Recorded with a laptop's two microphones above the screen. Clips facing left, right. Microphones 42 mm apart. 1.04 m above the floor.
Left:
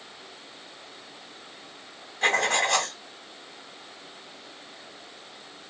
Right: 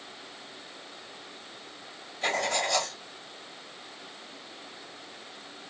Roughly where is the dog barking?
I don't hear a dog barking.